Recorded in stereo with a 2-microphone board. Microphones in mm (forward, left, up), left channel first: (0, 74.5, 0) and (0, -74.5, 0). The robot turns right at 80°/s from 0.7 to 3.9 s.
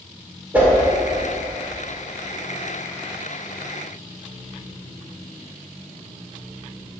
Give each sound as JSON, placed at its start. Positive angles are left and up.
{"t": 0.5, "sound": "a whoosh", "side_deg": -10, "distance_m": 2.0}